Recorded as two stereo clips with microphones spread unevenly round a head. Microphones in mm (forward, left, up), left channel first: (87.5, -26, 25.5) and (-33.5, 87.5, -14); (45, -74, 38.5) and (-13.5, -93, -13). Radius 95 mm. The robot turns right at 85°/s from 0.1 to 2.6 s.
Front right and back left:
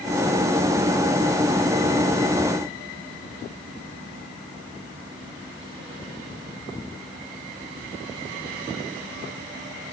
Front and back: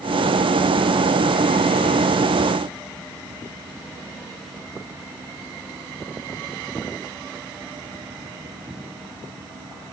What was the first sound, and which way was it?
Only background noise.